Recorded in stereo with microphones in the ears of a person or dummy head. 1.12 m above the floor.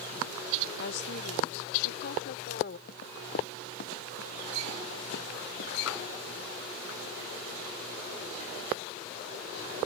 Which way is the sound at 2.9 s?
60° left (ahead or behind).